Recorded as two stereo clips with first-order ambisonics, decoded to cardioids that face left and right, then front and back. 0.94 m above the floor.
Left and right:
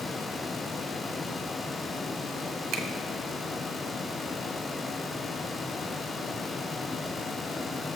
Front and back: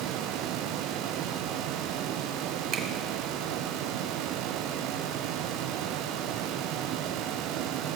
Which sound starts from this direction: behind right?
A finger snap, at 2.7 s.